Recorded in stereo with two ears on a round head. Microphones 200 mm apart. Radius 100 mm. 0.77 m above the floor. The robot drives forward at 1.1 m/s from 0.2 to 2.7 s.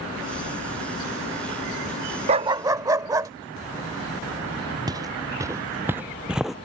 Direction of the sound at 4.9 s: 20° right (ahead or behind).